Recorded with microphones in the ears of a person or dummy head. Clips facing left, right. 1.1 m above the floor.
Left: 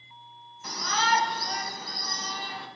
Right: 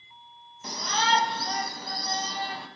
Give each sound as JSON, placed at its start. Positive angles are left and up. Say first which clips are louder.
{"t": 0.6, "sound": "a shout", "louder": "right 1 dB", "side_deg": -20, "distance_m": 1.4}